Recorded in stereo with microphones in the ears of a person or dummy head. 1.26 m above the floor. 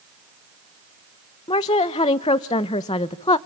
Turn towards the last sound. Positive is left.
turn(degrees=25)  # may be behind; listen again after turning